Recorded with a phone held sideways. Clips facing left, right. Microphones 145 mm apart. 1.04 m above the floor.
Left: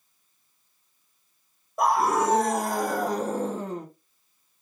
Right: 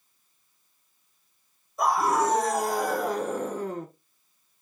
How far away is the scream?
About 1.7 m.